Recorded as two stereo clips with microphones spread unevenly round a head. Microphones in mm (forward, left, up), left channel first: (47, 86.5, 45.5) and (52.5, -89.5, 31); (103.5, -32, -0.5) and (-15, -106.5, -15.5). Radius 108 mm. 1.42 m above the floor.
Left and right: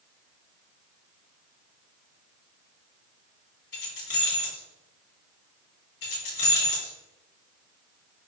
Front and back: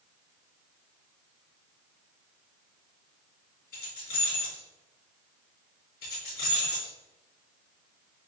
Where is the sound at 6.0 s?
75° left, 1.9 m.